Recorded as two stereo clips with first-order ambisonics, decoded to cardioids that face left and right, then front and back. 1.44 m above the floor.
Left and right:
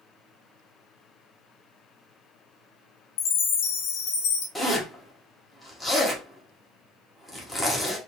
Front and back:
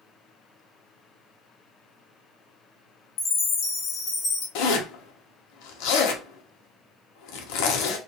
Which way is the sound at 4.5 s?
5° left.